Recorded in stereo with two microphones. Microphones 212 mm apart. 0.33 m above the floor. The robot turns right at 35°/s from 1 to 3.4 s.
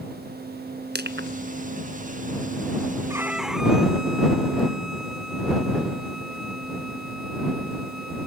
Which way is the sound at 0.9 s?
50° right (ahead or behind).